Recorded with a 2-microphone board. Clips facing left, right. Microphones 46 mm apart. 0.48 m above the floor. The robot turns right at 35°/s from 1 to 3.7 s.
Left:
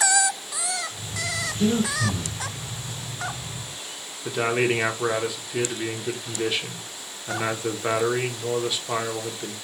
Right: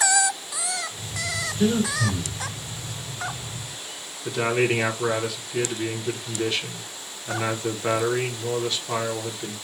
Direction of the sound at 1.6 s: 25° right (ahead or behind).